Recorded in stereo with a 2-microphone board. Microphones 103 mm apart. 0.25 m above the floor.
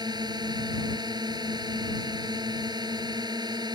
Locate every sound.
0.0 s a drone: 45° right (ahead or behind)